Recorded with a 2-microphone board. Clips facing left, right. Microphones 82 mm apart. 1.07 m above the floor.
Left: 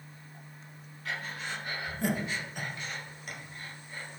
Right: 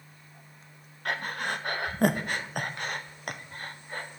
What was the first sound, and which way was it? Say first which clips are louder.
Breathing: right 6 dB; 60° right (ahead or behind).